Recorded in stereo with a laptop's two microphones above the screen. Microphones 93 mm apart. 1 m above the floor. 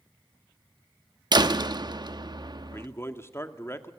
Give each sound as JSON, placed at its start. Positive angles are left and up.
{"t": 1.3, "sound": "a door slam", "side_deg": -50, "distance_m": 1.1}
{"t": 2.7, "sound": "a man speaking", "side_deg": 25, "distance_m": 2.0}